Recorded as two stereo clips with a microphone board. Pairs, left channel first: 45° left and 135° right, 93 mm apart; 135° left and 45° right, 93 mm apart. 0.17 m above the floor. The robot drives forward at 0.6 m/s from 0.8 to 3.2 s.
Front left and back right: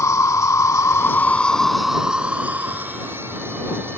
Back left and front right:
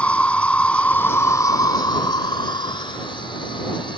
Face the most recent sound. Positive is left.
turn(degrees=165)